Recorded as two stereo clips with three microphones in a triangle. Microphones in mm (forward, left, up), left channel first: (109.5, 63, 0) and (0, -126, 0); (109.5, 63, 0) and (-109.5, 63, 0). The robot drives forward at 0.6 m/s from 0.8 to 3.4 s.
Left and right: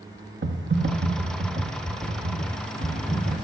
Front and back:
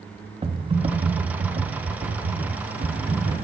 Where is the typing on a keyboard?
120° right, 0.9 m; by 3.4 s 160° right, 2 m.